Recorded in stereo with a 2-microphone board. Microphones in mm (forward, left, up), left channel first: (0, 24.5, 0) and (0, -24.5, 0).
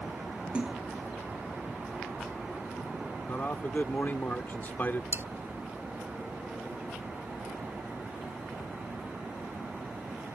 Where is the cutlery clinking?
50° right (ahead or behind).